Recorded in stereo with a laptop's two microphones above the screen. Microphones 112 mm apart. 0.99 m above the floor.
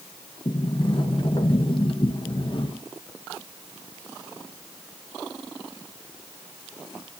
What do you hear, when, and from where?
0.5 s a sliding door: 45° left (ahead or behind), 1.1 m